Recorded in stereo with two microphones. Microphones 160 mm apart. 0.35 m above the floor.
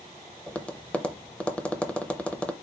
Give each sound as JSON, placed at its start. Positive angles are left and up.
{"t": 0.5, "sound": "tapping", "side_deg": 10, "distance_m": 0.5}